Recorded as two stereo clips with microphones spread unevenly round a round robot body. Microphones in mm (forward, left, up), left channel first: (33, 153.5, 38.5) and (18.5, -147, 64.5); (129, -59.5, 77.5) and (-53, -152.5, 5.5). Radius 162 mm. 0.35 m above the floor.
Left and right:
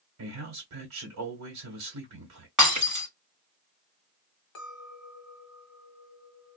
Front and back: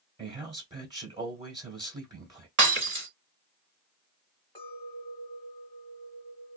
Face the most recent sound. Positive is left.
turn(degrees=110)